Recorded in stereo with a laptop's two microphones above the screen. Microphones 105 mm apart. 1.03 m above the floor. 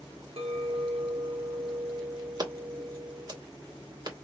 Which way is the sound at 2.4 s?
45° right (ahead or behind).